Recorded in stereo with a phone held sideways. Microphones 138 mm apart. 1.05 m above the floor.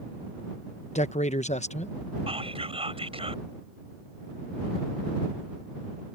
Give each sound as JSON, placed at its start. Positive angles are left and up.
{"t": 0.9, "sound": "a man speaking", "side_deg": 55}
{"t": 2.3, "sound": "whispering", "side_deg": -45}